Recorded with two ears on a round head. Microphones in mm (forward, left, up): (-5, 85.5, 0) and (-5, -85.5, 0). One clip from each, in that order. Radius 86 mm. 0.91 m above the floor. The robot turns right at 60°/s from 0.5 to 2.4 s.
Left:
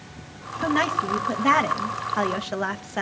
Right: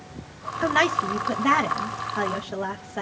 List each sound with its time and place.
0.6 s a woman speaking: 50° right, 0.9 m; by 3.0 s 60° left, 0.9 m